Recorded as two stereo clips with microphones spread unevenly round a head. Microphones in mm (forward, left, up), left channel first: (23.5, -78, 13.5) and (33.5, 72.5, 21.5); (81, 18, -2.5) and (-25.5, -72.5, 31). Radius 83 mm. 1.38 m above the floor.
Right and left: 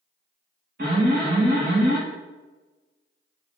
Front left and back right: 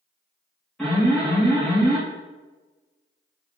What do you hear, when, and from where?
0.8 s an alarm: 125° left, 2 m